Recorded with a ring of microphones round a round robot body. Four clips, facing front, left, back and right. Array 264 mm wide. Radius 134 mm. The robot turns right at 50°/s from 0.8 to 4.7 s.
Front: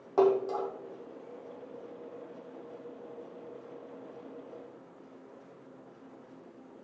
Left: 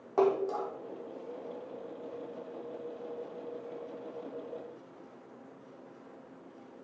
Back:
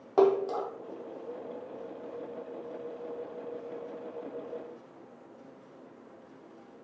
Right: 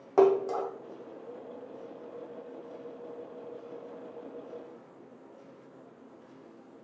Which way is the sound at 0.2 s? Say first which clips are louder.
Right 5 dB, back 1 dB; 120° right.